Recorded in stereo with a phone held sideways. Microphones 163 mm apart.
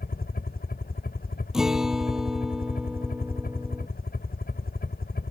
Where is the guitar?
5° right (ahead or behind).